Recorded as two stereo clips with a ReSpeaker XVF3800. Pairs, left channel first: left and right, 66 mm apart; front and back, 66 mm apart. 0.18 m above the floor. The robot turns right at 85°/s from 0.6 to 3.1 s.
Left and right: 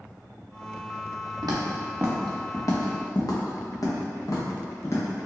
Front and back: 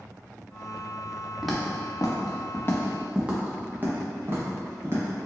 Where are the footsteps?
95° right, 1.1 m; by 5.2 s 135° left, 2 m.